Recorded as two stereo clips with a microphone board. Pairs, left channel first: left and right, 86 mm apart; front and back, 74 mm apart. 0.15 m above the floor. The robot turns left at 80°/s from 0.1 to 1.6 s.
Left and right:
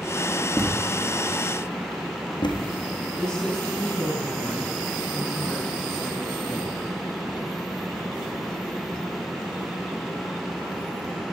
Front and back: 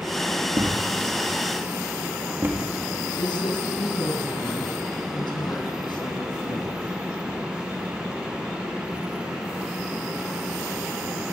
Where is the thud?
155° right, 3.5 m; by 2.6 s 120° left, 3.5 m.